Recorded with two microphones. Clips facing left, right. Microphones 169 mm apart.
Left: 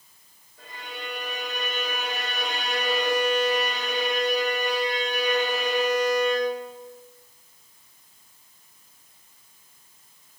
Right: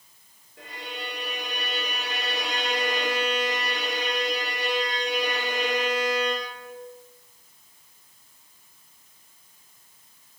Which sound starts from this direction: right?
A violin, at 0.6 s.